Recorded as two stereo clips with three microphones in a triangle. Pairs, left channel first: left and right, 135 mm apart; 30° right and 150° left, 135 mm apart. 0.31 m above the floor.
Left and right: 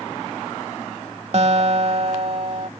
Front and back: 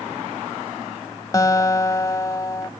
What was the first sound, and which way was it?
A guitar, 85° right.